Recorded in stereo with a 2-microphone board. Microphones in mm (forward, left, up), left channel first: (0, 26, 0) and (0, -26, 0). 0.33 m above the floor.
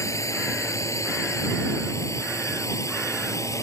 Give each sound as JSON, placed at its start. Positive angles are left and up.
{"t": 0.0, "sound": "a drone", "side_deg": 75}